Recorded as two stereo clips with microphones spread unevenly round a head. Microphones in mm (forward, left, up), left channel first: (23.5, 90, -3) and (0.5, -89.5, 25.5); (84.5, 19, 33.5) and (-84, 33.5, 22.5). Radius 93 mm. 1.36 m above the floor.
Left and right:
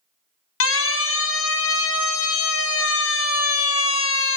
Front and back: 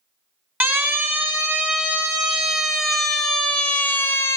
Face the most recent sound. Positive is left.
turn(degrees=65)